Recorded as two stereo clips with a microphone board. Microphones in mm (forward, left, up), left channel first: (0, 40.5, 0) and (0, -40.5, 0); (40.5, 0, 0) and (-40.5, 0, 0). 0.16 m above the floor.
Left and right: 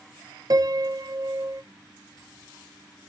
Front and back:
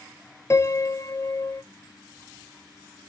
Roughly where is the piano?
Ahead right.